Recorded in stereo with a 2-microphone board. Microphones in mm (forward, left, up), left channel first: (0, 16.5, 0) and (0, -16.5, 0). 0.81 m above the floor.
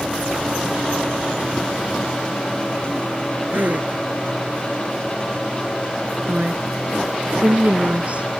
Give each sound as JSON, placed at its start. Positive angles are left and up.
{"t": 3.5, "sound": "a gasp", "side_deg": -55}
{"t": 6.3, "sound": "a woman speaking", "side_deg": -40}